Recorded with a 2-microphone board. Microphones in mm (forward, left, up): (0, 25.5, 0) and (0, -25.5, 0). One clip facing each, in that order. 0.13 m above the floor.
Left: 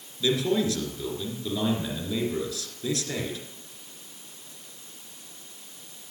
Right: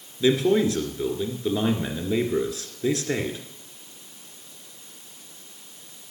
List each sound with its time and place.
0.2 s a man speaking: 30° right (ahead or behind), 2.0 m